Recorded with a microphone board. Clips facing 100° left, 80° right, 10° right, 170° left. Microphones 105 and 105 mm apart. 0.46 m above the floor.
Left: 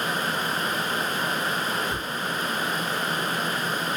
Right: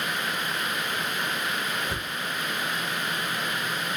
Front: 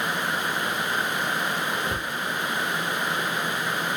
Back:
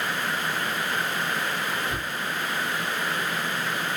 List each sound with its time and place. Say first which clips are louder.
1.9 s a cupboard door: left 3 dB, front 1 dB; 40° right, 1.8 m